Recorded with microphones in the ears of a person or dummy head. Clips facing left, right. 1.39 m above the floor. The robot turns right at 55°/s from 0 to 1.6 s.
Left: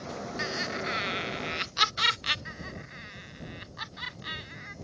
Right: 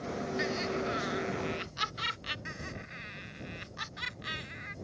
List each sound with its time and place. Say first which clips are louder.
0.4 s laughter: right 3 dB; straight ahead; by 2.4 s 70° left
2.5 s laughter: left 1 dB; 40° right (ahead or behind)